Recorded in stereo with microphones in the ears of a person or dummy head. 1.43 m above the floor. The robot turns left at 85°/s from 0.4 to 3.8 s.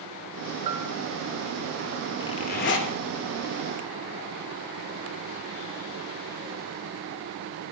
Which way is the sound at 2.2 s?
165° left.